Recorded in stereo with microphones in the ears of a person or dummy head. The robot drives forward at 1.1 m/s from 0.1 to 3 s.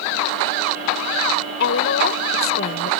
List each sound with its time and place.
1.6 s a woman speaking: 65° left (ahead or behind); by 2.9 s 50° left (ahead or behind)